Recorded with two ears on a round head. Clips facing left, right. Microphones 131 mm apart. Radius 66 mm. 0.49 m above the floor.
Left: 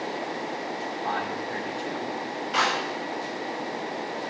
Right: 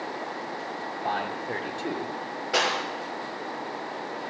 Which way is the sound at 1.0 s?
50° right (ahead or behind).